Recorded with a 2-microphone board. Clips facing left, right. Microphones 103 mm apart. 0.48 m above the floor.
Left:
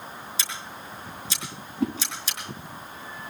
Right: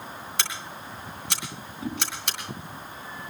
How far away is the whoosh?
About 3.5 m.